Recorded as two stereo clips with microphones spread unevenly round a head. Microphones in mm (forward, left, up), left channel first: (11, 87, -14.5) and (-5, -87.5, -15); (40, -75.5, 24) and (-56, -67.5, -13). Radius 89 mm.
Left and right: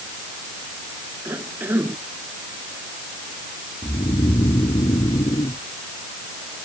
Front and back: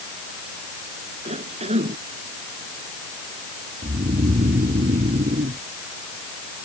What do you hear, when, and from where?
1.2 s a cough: 175° right
3.8 s snoring: 155° left